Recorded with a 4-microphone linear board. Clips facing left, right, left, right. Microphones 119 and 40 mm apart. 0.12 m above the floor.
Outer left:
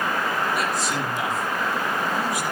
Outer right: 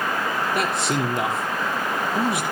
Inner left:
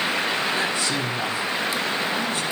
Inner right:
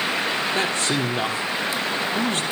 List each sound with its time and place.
0.6 s a man speaking: 65° right (ahead or behind), 3.5 m